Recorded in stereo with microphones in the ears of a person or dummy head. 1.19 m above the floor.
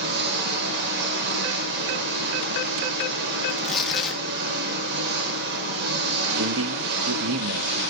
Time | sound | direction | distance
0.0 | an engine running | 65° right (ahead or behind) | 1.9 m
3.5 | tearing paper | centre (ahead or behind) | 1.5 m
6.4 | a man speaking | 75° right (ahead or behind) | 1.3 m